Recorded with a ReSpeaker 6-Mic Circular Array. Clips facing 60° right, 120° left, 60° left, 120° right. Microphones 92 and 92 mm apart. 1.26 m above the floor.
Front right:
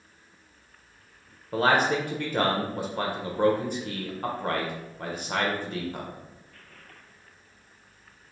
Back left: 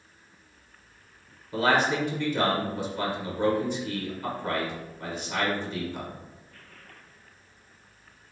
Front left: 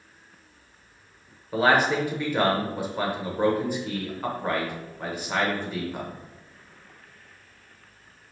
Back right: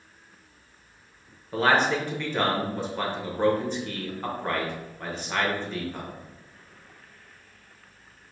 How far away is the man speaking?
About 0.9 m.